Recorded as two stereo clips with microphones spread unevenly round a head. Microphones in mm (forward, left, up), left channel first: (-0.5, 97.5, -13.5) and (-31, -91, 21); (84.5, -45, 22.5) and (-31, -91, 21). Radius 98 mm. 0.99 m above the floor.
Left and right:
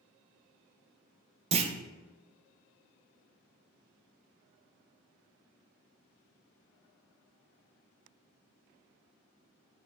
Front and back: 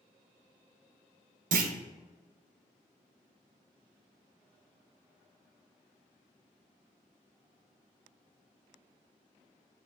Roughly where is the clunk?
Behind.